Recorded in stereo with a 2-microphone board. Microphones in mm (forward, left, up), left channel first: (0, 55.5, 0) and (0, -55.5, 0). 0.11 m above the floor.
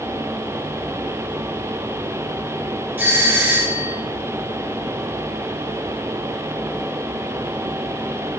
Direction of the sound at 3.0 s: 15° right (ahead or behind).